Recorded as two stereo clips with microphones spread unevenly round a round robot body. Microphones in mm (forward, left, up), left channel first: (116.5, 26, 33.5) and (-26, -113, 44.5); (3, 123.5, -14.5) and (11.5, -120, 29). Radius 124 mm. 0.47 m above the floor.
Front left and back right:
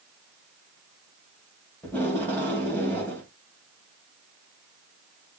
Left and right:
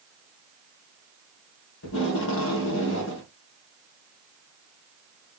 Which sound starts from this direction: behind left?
Tape being pulled, at 1.8 s.